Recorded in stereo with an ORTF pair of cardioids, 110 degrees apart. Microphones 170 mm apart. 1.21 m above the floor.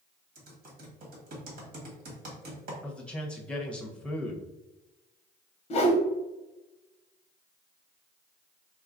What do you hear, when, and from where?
0.3 s typing on a keyboard: 65° right, 1.4 m
2.8 s a man speaking: 5° left, 0.8 m
5.7 s a whoosh: 35° left, 0.7 m